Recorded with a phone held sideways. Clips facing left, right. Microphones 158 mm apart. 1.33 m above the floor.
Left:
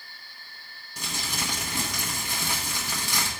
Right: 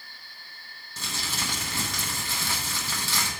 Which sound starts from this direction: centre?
Crumpling, at 1.0 s.